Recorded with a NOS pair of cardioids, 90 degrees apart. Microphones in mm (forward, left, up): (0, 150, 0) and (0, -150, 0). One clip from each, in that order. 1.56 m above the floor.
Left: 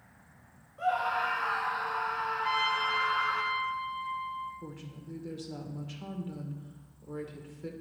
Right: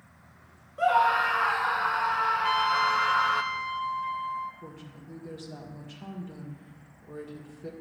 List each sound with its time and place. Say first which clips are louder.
0.8 s a scream: right 7 dB; 50° right, 0.6 m
2.4 s a trumpet: right 1 dB; 50° right, 0.8 m
4.6 s a woman speaking: even; 20° left, 1.7 m